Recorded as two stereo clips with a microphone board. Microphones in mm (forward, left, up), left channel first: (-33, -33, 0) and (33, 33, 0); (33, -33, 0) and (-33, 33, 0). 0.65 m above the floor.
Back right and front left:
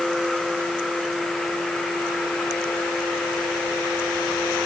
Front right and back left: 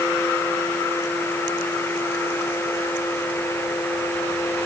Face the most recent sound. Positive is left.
No sound to turn to.